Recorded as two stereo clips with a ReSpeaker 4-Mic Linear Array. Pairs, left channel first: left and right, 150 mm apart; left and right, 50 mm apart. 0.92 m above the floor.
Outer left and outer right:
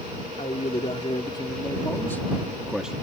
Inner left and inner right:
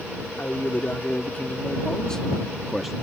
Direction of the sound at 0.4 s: 45° left (ahead or behind).